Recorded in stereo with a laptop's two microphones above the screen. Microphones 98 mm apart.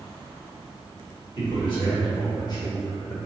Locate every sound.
1.4 s a man speaking: 50° left (ahead or behind), 1.6 m; by 3.2 s 35° left (ahead or behind), 0.7 m